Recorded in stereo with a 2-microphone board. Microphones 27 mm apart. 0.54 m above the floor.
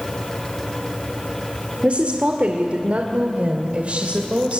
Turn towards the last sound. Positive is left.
turn(degrees=-50)  # may be behind; listen again after turning